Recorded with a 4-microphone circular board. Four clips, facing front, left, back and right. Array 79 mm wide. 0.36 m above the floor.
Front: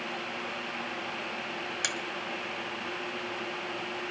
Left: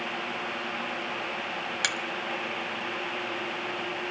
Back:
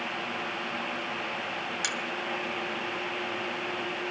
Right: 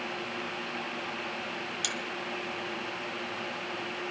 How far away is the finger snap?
About 1.5 m.